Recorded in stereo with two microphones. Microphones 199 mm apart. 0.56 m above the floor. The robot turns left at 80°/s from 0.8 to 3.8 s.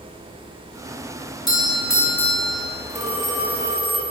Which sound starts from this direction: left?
A phone ringing, at 2.9 s.